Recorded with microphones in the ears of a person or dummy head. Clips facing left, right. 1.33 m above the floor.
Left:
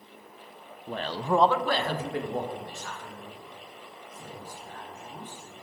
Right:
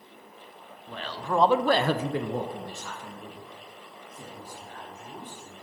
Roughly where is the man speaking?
Left.